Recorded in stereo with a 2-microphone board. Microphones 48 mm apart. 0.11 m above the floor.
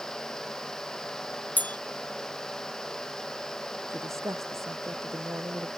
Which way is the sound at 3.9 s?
80° right.